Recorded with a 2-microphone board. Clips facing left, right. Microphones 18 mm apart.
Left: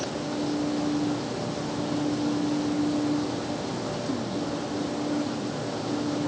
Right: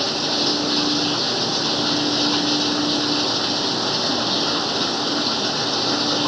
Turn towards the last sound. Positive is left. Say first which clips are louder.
# right 9 dB
turn(degrees=-75)  # may be behind; listen again after turning